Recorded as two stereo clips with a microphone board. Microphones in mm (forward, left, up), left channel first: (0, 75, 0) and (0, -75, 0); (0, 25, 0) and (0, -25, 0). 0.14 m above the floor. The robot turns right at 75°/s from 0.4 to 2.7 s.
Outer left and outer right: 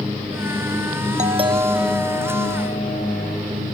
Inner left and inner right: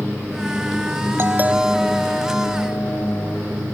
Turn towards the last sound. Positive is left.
turn(degrees=60)